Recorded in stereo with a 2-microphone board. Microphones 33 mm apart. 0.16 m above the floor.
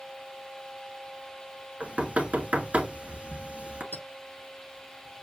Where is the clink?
70° left (ahead or behind), 4 m.